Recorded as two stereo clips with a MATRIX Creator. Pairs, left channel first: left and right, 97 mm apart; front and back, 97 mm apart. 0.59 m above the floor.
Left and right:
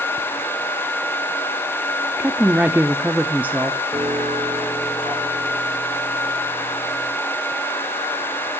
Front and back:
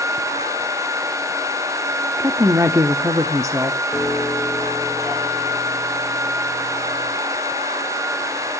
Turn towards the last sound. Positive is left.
turn(degrees=-95)